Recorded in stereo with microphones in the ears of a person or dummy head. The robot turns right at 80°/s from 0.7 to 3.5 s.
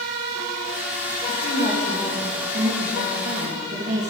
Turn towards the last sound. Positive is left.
turn(degrees=-50)